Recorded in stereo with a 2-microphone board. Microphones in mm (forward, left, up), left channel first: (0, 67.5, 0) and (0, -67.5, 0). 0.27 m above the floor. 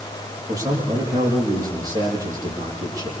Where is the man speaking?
25° right (ahead or behind), 8.5 m.